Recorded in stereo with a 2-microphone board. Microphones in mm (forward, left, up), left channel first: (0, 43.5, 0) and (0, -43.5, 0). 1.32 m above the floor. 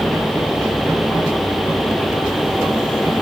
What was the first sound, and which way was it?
Only background noise.